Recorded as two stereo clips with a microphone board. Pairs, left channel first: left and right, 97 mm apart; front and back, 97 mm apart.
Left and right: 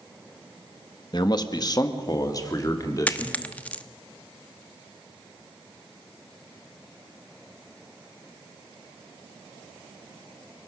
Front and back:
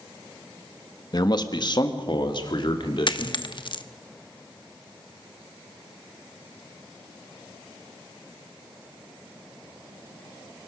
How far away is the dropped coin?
About 0.9 m.